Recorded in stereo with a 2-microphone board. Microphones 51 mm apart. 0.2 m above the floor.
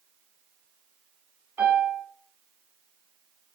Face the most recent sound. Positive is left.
turn(degrees=-40)  # may be behind; listen again after turning